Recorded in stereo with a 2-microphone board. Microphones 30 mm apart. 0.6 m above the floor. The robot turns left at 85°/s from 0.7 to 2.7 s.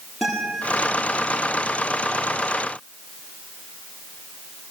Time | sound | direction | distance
0.2 | a guitar | 5° left (ahead or behind) | 9.5 m